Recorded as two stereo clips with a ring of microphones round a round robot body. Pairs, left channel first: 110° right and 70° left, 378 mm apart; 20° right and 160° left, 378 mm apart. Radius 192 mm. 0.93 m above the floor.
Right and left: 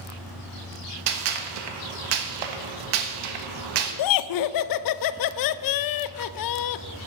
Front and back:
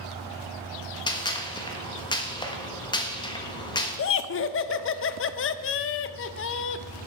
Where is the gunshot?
55° left, 1.2 m.